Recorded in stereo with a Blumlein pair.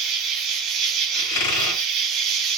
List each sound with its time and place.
0.0 s an insect: 30° right, 0.8 m
1.1 s a squeak: 50° left, 1.9 m